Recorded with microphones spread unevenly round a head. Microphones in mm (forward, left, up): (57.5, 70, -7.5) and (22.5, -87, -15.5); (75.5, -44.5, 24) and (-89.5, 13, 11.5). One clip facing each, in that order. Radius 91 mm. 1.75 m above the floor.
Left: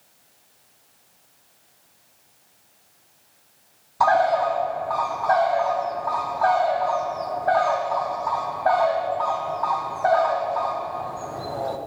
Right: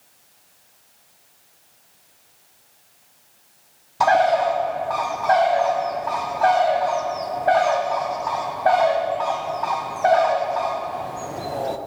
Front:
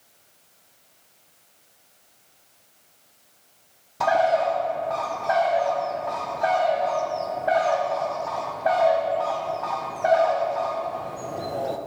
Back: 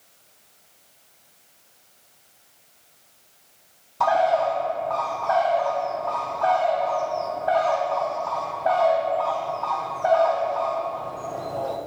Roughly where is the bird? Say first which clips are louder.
Right 2 dB, even; ahead right.